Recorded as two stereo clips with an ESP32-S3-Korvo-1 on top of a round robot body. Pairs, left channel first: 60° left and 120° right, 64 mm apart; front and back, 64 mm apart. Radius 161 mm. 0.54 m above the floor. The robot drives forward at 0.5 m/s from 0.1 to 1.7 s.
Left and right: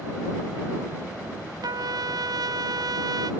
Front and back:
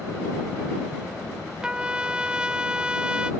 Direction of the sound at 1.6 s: 100° right.